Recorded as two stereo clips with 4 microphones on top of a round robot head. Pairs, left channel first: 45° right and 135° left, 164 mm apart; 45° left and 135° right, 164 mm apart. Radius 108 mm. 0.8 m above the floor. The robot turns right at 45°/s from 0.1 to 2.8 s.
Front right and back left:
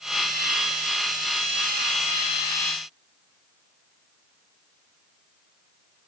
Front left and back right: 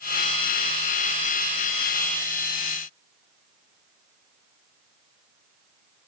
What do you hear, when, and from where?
Only background noise.